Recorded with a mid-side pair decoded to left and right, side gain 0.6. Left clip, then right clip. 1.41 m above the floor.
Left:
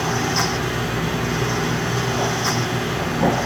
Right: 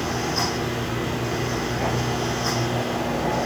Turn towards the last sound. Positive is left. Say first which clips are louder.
# left 4 dB
turn(degrees=35)